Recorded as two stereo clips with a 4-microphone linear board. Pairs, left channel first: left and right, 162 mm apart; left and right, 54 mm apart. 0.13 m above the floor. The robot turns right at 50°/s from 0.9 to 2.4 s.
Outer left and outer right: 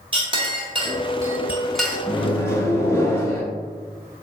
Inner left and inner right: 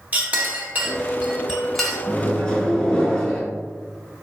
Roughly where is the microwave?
Centre.